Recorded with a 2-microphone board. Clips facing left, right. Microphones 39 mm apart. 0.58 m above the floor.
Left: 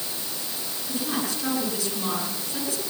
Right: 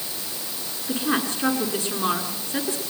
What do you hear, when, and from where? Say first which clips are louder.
0.9 s a woman speaking: right 5 dB; 35° right (ahead or behind), 7.5 m